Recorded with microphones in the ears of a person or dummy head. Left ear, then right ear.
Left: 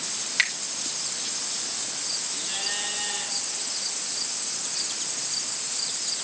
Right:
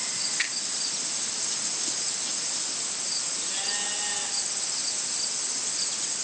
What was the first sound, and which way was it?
A finger snap, 50° left (ahead or behind).